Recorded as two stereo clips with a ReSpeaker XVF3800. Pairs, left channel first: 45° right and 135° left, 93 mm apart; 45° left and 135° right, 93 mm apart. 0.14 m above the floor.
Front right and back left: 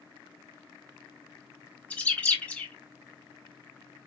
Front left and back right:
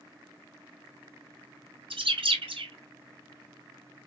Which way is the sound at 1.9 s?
120° right.